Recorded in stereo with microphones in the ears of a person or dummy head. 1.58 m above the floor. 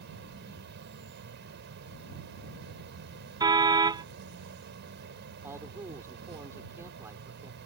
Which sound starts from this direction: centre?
A man speaking, at 5.4 s.